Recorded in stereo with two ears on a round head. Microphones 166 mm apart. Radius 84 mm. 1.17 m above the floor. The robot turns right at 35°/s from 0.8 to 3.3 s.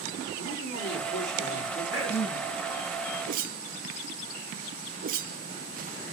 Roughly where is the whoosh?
Right.